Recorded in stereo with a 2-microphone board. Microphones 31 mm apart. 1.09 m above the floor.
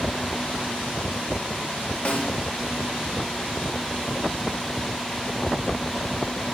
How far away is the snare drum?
About 1.3 m.